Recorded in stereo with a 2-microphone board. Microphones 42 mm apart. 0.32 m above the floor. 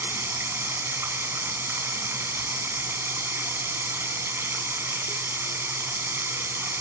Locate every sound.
0.0 s running water: 75° right (ahead or behind), 1.2 m